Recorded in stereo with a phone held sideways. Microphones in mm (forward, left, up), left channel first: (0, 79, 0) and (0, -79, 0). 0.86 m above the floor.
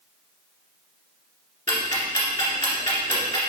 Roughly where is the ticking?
Left.